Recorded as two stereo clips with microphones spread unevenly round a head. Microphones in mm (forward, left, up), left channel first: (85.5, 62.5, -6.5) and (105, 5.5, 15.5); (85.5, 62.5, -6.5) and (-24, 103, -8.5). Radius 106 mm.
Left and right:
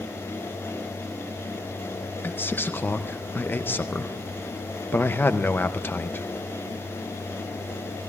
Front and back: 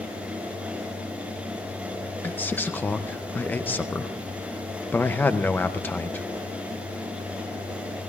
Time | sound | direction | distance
2.2 | a man speaking | 55° left | 0.6 m